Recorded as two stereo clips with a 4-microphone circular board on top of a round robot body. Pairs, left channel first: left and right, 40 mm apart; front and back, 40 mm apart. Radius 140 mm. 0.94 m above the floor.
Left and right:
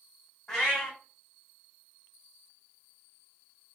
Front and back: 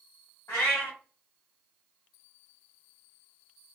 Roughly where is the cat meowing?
Ahead.